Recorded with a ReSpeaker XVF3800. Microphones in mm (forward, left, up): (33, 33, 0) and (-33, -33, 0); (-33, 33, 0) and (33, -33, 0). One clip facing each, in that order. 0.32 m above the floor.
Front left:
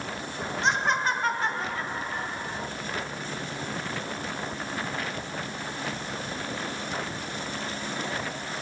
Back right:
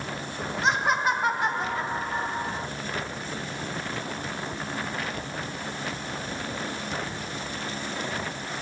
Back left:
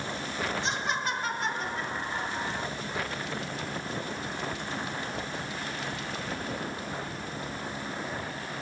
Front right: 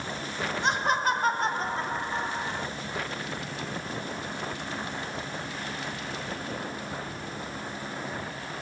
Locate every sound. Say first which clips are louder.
0.6 s laughter: back right 1 dB, front right 5 dB; 50° right, 1.7 m; by 2.7 s 115° right, 1.3 m